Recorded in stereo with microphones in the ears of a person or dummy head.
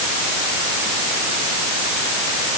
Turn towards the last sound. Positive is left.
No sound to turn to.